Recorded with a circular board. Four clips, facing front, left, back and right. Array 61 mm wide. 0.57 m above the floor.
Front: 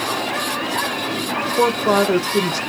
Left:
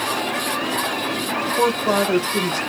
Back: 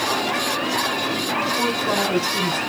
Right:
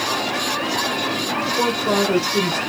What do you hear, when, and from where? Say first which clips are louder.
1.6 s a woman speaking: left 2 dB, front 5 dB; 10° left, 0.7 m